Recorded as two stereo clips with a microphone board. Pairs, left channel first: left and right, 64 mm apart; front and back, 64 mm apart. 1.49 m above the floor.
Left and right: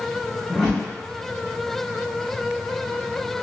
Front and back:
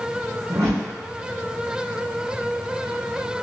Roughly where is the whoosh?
Behind.